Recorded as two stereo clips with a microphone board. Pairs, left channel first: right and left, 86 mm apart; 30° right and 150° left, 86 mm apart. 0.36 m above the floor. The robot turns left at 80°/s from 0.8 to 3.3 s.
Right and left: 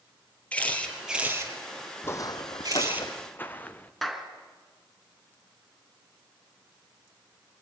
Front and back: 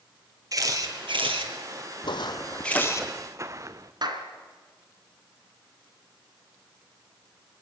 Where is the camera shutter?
165° right, 3.5 m; by 3.0 s 15° left, 3.5 m.